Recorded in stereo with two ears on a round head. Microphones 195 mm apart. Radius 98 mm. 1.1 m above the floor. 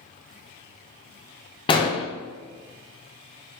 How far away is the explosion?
About 0.5 m.